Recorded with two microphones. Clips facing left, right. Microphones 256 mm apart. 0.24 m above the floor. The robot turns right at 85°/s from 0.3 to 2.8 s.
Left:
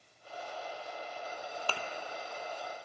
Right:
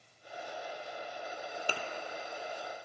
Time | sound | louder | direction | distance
1.7 | a thud | right 2 dB | 15° right (ahead or behind) | 0.5 m